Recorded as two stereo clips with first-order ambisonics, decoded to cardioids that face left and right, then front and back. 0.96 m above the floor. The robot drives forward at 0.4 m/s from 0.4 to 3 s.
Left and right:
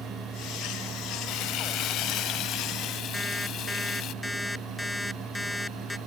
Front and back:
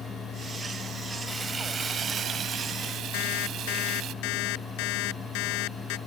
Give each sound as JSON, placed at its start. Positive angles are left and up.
{"t": 1.3, "sound": "frying", "azimuth_deg": 105}
{"t": 3.1, "sound": "an alarm clock", "azimuth_deg": 5}